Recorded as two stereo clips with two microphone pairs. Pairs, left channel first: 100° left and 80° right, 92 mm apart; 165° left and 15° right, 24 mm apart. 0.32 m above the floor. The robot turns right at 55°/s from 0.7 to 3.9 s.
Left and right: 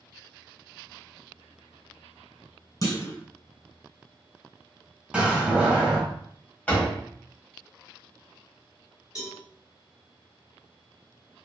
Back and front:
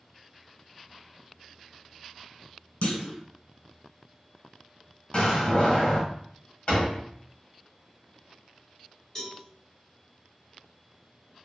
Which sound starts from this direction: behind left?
A clunk, at 2.8 s.